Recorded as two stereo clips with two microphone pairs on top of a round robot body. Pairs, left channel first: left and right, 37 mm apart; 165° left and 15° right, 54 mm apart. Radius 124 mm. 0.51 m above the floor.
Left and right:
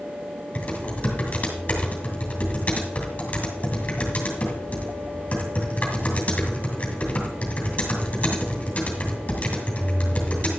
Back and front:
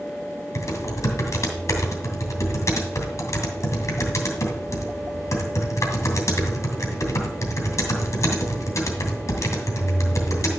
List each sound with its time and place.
0.6 s typing on a keyboard: 150° left, 2.5 m